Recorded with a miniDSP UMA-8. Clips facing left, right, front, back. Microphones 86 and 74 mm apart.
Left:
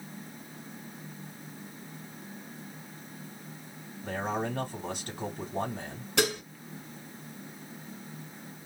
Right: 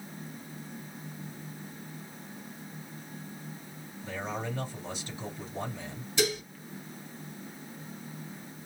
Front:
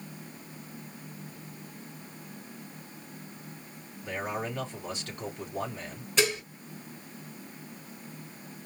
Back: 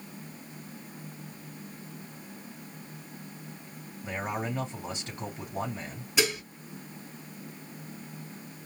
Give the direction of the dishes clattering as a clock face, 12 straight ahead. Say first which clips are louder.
Left 1 dB, front 1 dB; 9 o'clock.